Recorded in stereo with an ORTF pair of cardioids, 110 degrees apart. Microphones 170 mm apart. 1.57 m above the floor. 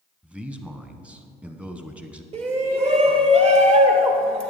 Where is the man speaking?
5° right, 1.1 m.